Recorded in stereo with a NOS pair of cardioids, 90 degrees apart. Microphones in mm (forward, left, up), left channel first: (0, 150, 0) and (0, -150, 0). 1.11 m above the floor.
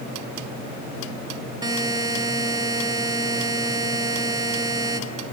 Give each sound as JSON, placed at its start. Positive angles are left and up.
{"t": 1.6, "sound": "a buzzer", "azimuth_deg": -15, "distance_m": 1.4}